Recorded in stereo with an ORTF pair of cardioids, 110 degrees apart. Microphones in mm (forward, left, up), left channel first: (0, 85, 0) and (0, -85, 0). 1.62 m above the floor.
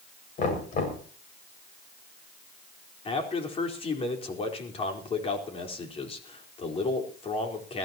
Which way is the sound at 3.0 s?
35° left.